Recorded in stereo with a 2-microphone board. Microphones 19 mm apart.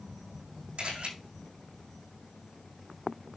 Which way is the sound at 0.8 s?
75° right (ahead or behind).